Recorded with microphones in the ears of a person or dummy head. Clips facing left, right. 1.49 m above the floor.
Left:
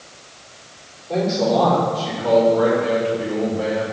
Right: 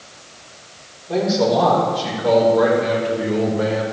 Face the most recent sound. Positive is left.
turn(degrees=-40)  # may be behind; listen again after turning